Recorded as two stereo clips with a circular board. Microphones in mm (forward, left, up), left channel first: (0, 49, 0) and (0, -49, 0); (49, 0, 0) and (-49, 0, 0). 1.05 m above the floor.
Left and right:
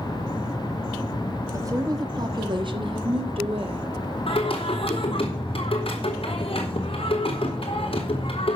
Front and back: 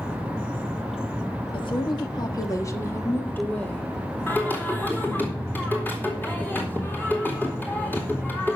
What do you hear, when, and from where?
1.5 s a woman speaking: 30° right, 1.7 m; by 3.9 s 80° right, 2 m
4.3 s singing: 70° left, 4 m